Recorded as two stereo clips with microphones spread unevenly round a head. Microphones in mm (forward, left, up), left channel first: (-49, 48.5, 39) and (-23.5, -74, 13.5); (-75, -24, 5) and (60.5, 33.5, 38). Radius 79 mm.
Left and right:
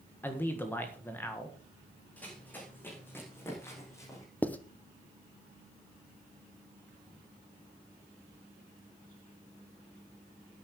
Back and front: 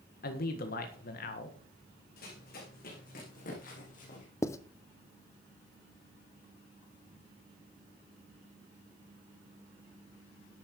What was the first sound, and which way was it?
A man speaking, 175° left.